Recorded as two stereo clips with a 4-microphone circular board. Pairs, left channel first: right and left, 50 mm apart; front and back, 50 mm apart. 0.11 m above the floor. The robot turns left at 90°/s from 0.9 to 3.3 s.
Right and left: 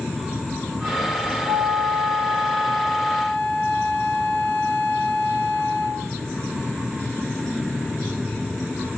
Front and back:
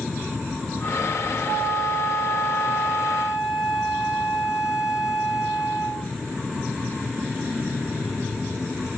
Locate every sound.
1.5 s a flute: 70° left, 1.6 m; by 6.2 s 95° right, 1.6 m